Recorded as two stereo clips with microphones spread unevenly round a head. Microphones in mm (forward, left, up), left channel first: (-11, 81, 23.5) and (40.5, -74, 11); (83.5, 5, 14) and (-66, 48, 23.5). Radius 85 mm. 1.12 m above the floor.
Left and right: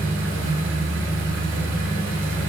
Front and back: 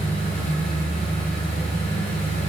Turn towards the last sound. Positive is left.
turn(degrees=-70)